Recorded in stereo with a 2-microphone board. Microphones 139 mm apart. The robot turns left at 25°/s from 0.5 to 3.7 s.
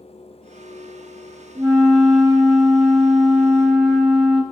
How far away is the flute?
About 0.8 m.